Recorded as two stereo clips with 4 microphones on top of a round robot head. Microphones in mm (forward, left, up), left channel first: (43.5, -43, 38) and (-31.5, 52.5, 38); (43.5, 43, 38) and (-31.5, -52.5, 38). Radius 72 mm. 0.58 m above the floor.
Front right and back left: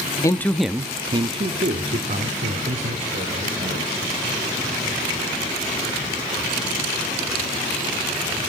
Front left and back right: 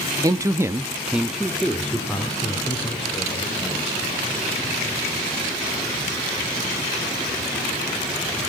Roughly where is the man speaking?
Right.